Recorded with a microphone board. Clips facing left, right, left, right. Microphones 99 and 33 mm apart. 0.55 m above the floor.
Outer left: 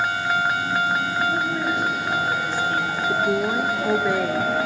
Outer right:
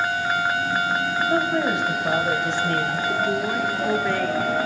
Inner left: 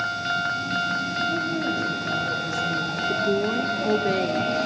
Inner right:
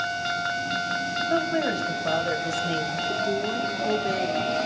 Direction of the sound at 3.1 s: 15° left (ahead or behind).